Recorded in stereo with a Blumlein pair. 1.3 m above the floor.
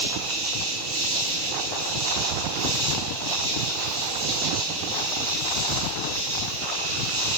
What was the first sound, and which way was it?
An insect, 50° right.